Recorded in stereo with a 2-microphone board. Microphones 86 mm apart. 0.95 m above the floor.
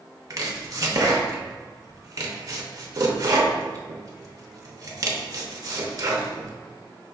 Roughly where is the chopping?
Right.